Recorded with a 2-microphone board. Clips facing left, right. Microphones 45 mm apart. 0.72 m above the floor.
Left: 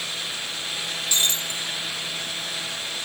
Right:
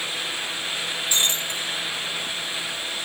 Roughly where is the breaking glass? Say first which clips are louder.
Even; centre.